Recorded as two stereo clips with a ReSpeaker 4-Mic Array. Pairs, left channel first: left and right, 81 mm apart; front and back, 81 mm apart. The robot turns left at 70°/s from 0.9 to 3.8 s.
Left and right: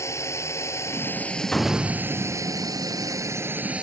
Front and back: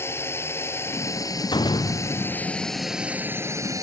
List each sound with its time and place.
0.0 s a drone: 50° left; by 3.8 s 160° right
1.5 s a door slam: 10° left; by 2.6 s 65° right